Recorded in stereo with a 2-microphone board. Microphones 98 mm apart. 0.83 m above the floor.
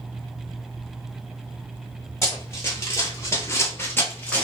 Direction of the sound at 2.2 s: 25° left (ahead or behind).